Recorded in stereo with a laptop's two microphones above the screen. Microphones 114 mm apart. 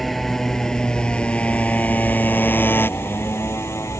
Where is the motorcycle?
Centre (ahead or behind); by 4.0 s 25° left (ahead or behind).